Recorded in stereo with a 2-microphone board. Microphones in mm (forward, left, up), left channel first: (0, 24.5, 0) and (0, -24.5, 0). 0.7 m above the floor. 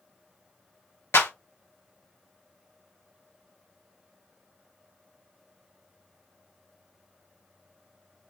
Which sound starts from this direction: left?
A clap, at 1.1 s.